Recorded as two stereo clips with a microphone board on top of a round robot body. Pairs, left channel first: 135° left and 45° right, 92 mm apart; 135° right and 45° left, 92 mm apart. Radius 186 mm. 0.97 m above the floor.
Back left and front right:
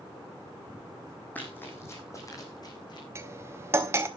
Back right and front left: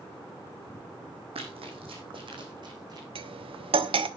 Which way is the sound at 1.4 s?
60° left.